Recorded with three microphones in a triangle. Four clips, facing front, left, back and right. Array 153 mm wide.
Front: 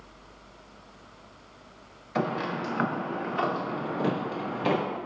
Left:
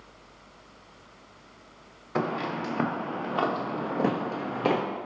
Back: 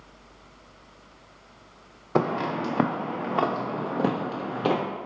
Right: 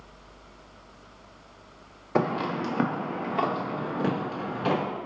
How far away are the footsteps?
About 1.0 m.